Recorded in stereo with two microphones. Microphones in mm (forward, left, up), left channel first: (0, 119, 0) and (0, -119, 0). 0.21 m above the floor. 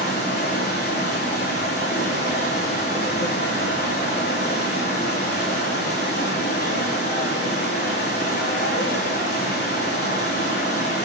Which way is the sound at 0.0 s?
45° left (ahead or behind).